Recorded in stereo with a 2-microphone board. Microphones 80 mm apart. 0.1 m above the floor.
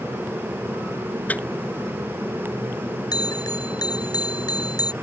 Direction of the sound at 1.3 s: 20° left (ahead or behind).